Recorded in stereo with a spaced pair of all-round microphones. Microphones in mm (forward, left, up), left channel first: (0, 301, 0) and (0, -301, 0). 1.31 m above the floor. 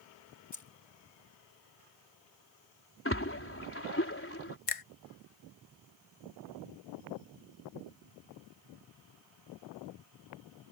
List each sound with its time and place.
0.5 s keys jangling: 30° left (ahead or behind)
3.0 s a splash: 20° left (ahead or behind)
4.7 s a finger snap: 65° left (ahead or behind)